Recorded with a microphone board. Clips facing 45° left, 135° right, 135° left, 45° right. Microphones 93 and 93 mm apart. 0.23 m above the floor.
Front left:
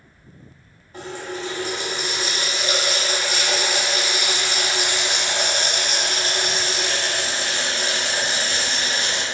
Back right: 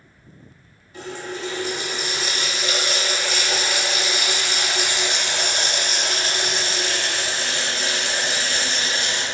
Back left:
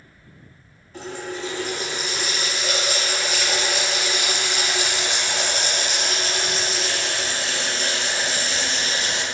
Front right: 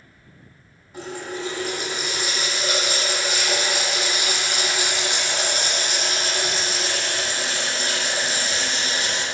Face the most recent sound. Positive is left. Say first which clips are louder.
# front left 1 dB, even
turn(degrees=30)